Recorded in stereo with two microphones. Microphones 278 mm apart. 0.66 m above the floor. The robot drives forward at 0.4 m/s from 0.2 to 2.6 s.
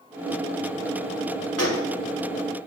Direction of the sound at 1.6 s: 60° left (ahead or behind).